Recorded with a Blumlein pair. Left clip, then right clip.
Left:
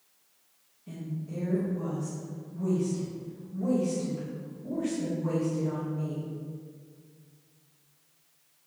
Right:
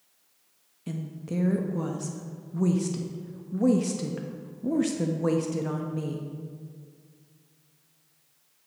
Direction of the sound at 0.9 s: 55° right.